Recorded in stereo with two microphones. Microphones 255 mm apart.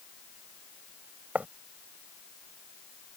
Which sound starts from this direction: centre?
Writing, at 1.4 s.